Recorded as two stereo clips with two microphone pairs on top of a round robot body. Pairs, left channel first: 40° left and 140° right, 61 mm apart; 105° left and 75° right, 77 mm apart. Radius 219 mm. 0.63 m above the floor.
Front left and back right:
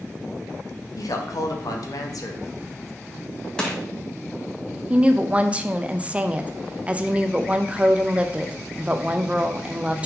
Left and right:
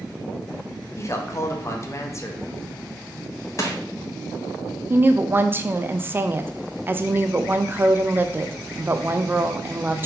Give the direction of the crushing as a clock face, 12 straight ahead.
8 o'clock.